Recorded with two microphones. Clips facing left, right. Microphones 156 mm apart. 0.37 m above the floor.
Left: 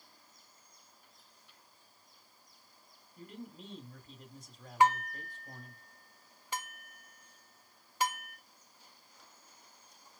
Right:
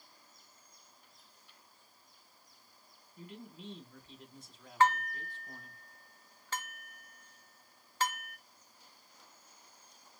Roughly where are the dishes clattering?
Centre.